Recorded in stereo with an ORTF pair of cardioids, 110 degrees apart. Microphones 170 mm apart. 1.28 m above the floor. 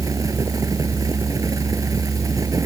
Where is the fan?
20° right.